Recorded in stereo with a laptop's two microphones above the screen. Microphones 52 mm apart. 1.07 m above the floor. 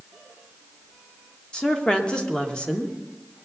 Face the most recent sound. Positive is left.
turn(degrees=15)  # may be behind; listen again after turning